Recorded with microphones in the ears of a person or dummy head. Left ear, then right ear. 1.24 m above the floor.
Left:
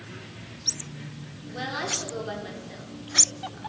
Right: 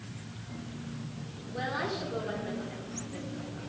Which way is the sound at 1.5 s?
20° left (ahead or behind).